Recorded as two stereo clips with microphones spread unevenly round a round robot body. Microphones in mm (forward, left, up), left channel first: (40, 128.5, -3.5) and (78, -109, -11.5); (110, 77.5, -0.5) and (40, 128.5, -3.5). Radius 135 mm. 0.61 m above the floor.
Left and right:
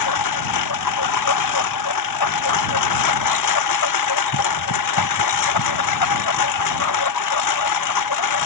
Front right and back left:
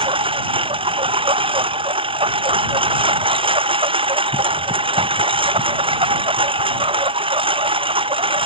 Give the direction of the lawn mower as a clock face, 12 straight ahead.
8 o'clock.